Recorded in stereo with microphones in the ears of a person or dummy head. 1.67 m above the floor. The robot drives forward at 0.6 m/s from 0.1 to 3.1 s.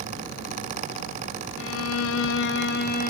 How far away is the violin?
About 0.7 m.